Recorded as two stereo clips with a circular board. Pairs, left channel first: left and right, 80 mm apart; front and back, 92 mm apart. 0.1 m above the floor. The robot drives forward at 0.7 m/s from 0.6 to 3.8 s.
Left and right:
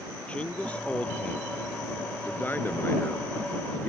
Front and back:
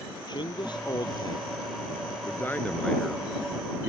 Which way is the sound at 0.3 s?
20° left.